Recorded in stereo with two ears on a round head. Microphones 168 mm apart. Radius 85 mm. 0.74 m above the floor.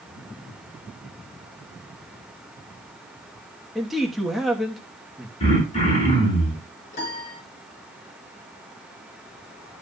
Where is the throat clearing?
35° left (ahead or behind), 6.5 m.